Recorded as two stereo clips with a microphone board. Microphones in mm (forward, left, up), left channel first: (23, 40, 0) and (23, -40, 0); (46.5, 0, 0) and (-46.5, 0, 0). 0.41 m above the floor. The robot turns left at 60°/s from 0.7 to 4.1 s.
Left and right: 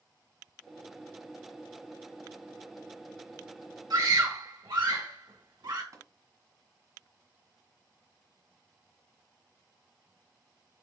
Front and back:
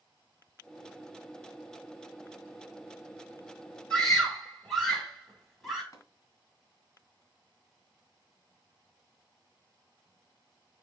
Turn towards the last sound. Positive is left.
turn(degrees=-50)